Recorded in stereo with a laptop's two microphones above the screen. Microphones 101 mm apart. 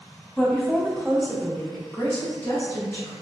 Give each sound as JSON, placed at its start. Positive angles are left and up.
{"t": 0.4, "sound": "a woman speaking", "side_deg": -10, "distance_m": 0.9}